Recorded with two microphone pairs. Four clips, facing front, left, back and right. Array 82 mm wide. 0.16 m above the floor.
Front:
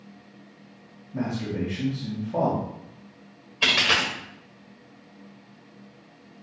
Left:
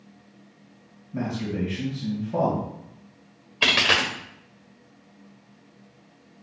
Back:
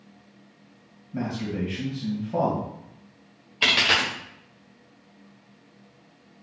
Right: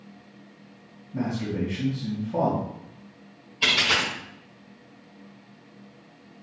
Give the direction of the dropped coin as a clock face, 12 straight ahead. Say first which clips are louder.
Left 2 dB, back 1 dB; 9 o'clock.